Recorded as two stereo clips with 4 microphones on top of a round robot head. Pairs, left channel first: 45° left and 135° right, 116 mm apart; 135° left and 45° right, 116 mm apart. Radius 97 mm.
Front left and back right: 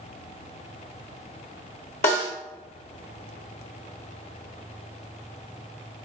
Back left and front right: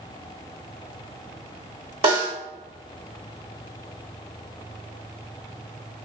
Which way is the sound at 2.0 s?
10° left.